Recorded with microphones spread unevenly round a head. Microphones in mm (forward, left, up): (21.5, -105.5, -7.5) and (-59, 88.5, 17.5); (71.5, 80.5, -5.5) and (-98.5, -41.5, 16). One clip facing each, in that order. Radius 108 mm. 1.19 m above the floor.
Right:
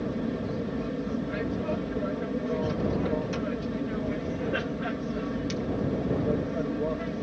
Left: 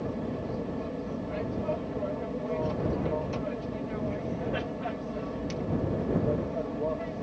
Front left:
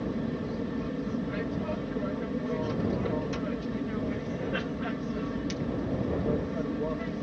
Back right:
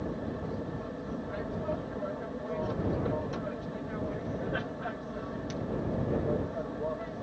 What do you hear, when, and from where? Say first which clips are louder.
0.0 s an aircraft: right 3 dB, front left 4 dB; 5° right